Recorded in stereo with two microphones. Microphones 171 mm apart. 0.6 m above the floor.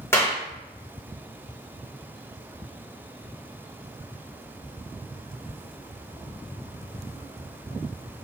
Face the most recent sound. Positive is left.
turn(degrees=15)  # may be behind; listen again after turning